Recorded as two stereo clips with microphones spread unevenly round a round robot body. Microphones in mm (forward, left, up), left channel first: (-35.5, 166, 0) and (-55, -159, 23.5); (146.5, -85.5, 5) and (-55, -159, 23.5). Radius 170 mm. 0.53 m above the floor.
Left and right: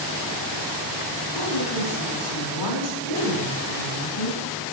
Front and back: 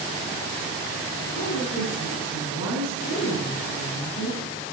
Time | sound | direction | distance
1.4 | a woman speaking | 75° left | 6 m